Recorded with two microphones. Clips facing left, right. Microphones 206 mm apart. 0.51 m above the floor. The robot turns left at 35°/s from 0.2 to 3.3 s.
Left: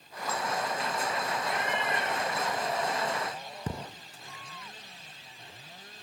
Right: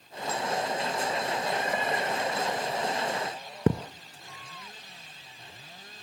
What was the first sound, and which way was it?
A cat meowing, 100° left.